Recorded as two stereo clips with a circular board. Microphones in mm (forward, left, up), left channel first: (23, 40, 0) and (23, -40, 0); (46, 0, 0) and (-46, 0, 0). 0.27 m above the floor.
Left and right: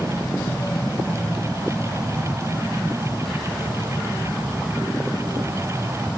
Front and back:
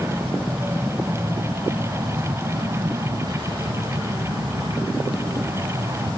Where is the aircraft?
120° left; by 6.2 s 170° right.